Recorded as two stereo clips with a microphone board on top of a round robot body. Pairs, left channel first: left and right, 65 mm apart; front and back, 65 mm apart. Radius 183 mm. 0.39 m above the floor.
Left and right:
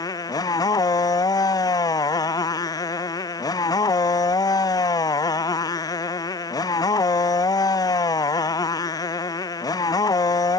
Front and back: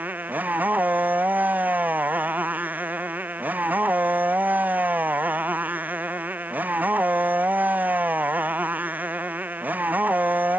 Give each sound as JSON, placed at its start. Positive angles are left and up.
{"t": 0.0, "sound": "a motorcycle", "azimuth_deg": 115}